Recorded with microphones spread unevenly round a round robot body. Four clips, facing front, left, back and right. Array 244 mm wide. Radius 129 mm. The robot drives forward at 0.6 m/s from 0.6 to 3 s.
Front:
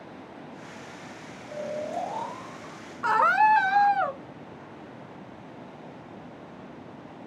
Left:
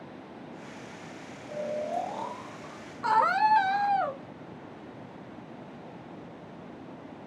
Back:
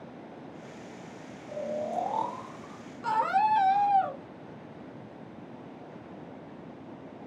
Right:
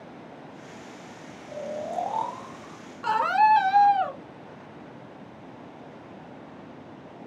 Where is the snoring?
100° right, 1.8 m; by 2.8 s 120° right, 2 m.